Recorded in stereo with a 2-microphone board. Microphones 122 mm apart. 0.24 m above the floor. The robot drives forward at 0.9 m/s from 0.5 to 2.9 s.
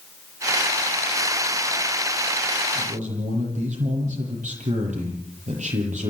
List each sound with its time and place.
2.8 s a man speaking: 75° right (ahead or behind), 8.5 m